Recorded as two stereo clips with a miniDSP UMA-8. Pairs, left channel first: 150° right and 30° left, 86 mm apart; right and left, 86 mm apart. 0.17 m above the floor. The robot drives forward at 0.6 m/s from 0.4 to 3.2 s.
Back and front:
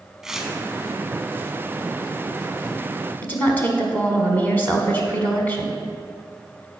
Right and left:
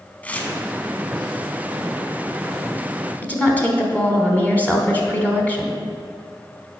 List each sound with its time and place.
0.2 s tearing paper: 45° right, 0.8 m; by 0.5 s 55° right, 0.8 m
3.2 s a woman speaking: 125° right, 1.1 m